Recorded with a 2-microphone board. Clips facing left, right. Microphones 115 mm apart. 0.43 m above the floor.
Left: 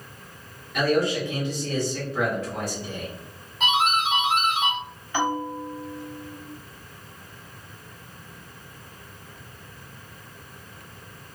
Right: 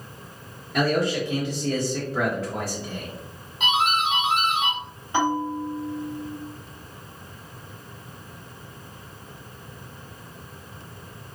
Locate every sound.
0.7 s a man speaking: 35° right (ahead or behind), 1.1 m
3.6 s a doorbell: 5° right (ahead or behind), 1.8 m
5.1 s a bell: 25° right (ahead or behind), 1.2 m